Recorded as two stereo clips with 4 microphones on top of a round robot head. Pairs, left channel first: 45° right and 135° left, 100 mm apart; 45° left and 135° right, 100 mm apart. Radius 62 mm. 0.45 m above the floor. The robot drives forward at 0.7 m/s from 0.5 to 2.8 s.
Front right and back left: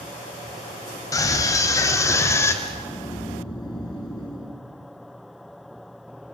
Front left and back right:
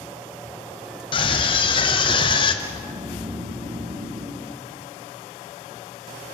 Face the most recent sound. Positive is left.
turn(degrees=-100)